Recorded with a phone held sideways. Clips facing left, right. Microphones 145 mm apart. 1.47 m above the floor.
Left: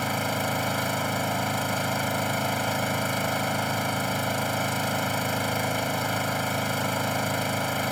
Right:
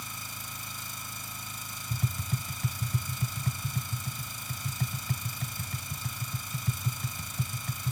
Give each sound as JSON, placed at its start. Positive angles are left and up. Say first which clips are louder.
{"t": 0.0, "sound": "an engine running", "louder": "left 19 dB", "side_deg": 75}
{"t": 1.9, "sound": "tapping", "louder": "left 10 dB", "side_deg": -80}